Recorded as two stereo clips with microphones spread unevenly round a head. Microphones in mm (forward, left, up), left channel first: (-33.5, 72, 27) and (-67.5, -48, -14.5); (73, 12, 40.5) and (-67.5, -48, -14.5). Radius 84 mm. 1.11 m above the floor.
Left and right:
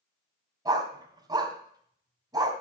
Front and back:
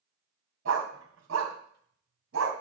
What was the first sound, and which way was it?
A dog barking, 175° right.